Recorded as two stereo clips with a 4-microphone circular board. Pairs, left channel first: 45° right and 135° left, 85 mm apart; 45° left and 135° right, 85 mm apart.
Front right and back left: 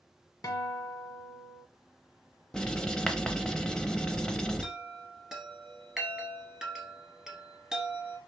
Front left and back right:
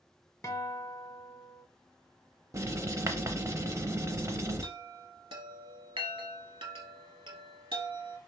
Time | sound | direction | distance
0.4 | a guitar | 5° right | 0.7 m
2.5 | writing | 120° right | 0.6 m
4.6 | a chime | 140° right | 0.8 m